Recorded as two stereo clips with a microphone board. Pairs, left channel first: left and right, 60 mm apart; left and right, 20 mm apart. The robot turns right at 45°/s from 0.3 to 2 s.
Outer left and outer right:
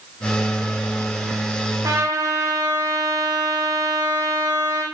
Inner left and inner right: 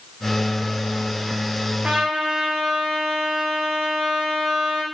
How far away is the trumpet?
About 4 m.